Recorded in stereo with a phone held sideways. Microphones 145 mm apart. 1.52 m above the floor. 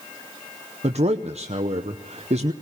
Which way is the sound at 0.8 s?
50° right (ahead or behind).